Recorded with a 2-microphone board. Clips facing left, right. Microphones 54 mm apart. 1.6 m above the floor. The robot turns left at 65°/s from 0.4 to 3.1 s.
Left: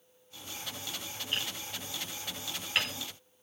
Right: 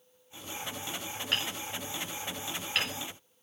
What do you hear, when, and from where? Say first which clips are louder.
1.3 s hammering: right 3 dB; 85° right, 6.5 m; by 2.9 s 15° left (ahead or behind), 6.5 m